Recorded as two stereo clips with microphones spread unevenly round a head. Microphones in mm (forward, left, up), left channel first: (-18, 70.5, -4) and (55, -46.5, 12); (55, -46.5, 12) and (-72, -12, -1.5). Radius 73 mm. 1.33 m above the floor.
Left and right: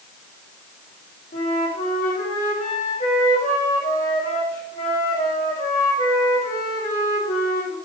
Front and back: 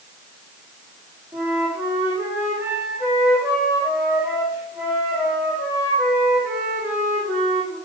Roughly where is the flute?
Left.